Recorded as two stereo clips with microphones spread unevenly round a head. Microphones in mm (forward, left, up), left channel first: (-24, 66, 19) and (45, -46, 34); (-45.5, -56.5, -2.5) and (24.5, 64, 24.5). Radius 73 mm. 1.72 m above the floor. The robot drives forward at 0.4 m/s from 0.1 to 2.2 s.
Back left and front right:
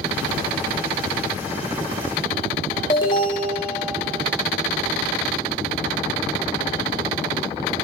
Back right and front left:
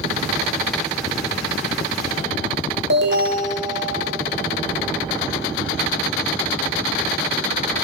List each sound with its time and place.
2.9 s an alarm: 65° left, 1.6 m